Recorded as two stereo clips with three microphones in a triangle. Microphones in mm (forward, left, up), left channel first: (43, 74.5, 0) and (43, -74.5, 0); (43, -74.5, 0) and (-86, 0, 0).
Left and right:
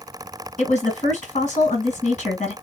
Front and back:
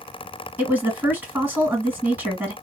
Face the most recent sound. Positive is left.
turn(degrees=75)